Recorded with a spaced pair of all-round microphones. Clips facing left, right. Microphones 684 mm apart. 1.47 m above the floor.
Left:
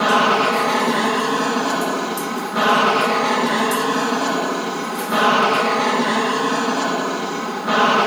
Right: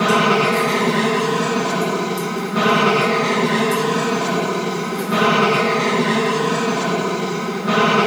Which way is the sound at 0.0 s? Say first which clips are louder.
Right 2 dB; 60° right (ahead or behind).